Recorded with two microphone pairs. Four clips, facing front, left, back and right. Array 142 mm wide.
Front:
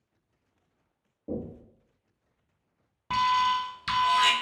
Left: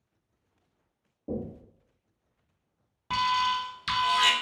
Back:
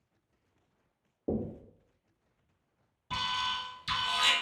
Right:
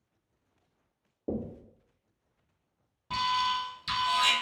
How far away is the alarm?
About 0.6 m.